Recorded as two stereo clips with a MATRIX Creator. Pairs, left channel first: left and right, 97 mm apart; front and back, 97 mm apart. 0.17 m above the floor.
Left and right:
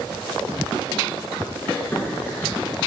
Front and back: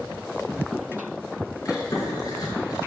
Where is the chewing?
30° left, 2.5 m.